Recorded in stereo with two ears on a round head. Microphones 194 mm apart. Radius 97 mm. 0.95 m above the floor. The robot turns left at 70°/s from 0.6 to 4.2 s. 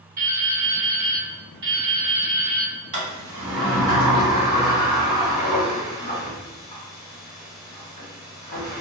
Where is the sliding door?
40° right (ahead or behind), 1.5 m; by 8.8 s 35° left (ahead or behind), 1.5 m.